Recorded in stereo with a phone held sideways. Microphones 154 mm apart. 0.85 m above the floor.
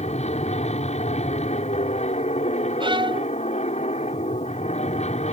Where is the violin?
35° right (ahead or behind).